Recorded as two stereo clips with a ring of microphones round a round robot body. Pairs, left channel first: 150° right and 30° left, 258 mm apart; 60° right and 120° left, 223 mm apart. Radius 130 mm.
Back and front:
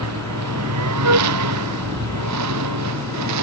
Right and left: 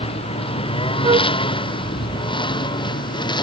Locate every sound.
0.0 s a lawn mower: 5° left; by 3.4 s 10° left
1.0 s a flute: 55° left